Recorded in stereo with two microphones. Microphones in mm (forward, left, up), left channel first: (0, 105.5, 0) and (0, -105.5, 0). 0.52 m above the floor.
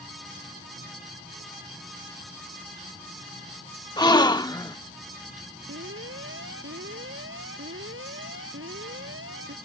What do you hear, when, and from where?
4.0 s a gasp: 20° left (ahead or behind)
5.7 s an alarm: 65° right (ahead or behind)